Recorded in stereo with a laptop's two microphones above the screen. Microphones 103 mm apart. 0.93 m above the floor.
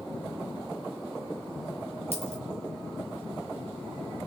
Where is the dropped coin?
80° right, 6.5 m.